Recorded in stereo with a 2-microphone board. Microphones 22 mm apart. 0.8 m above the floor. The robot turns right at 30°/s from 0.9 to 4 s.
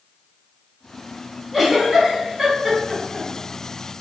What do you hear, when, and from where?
1.5 s a giggle: 5° right (ahead or behind), 1.1 m; by 3.3 s 45° right (ahead or behind), 1.1 m